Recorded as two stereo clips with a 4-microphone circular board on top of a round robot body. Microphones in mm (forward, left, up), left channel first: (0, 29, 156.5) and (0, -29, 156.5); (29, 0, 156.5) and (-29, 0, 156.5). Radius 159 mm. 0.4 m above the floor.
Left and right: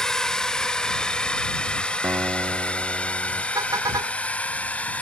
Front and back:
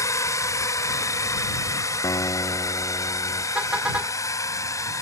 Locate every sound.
0.0 s a drone: 10° left; by 5.0 s 25° left
2.0 s a guitar: 35° right
3.5 s a car horn: 110° right